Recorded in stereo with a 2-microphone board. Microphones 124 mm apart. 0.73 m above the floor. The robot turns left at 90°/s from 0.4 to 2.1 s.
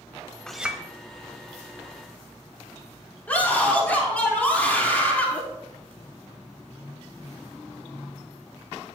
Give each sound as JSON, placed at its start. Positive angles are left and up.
{"t": 0.5, "sound": "a clink", "azimuth_deg": 5, "distance_m": 1.0}
{"t": 3.3, "sound": "a scream", "side_deg": 15, "distance_m": 1.8}